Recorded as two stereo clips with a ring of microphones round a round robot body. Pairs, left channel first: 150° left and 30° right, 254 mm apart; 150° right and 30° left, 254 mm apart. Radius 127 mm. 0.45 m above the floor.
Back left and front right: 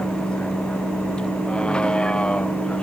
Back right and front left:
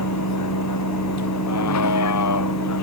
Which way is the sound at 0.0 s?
125° right.